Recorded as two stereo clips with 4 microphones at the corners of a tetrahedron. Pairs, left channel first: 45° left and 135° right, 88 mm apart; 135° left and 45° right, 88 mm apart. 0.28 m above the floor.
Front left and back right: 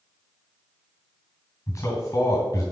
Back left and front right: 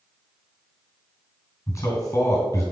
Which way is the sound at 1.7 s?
90° left.